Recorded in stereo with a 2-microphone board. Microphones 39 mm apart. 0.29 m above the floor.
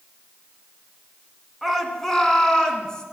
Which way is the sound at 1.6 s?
5° left (ahead or behind).